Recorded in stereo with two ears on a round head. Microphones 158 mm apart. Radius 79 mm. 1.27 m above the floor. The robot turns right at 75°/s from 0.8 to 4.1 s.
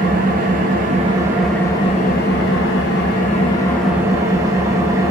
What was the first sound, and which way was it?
An engine running, 50° right.